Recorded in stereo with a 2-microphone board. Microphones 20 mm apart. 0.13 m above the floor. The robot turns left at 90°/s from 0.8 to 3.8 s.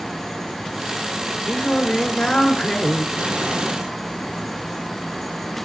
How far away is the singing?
About 2 m.